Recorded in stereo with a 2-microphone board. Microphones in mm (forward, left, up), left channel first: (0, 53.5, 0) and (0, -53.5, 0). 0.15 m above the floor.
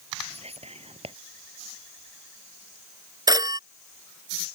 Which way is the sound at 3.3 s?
35° right (ahead or behind).